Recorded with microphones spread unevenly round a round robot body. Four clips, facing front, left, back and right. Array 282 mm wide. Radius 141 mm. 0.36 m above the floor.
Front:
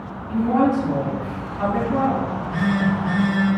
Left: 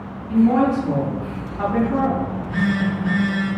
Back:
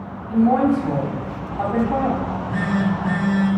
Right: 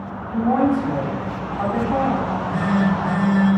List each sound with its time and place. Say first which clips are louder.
0.3 s a woman speaking: left 2 dB, back 2 dB; 165° right, 2.5 m
2.2 s a phone buzzing: right 1 dB, front 1 dB; 150° right, 1.9 m